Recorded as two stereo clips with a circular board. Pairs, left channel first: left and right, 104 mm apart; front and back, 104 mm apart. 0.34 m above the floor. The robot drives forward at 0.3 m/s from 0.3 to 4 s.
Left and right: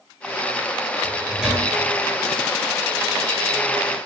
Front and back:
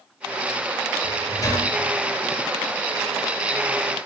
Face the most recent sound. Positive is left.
turn(degrees=-155)